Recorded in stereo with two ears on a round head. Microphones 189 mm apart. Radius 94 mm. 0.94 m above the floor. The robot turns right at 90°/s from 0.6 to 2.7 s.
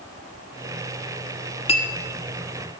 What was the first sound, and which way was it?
A clink, 30° left (ahead or behind).